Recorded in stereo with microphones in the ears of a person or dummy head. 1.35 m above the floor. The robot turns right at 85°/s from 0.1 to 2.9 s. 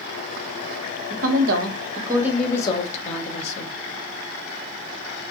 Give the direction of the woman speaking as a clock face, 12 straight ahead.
4 o'clock.